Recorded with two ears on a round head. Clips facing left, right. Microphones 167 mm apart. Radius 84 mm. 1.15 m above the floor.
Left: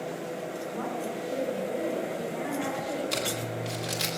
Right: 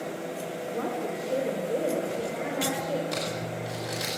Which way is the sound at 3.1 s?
40° left (ahead or behind).